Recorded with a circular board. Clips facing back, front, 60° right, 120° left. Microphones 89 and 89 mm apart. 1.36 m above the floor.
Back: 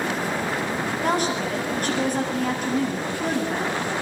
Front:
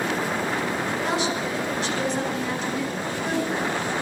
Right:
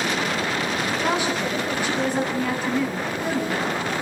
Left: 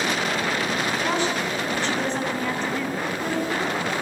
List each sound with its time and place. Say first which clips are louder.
1.0 s a woman speaking: back 4 dB, right 1 dB; 135° right, 9.5 m; by 3.8 s 145° right, 10 m